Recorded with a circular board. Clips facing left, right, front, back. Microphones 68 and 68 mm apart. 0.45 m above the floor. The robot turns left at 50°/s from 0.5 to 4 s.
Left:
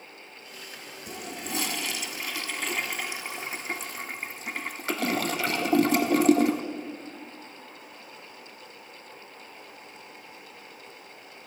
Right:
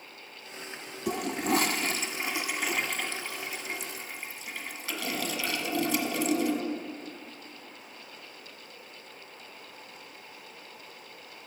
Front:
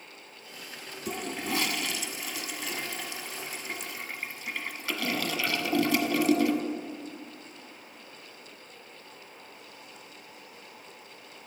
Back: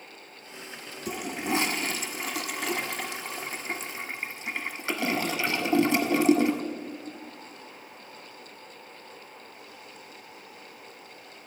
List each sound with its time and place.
1.1 s a toilet flushing: 95° right, 0.5 m; by 6.6 s 120° left, 0.5 m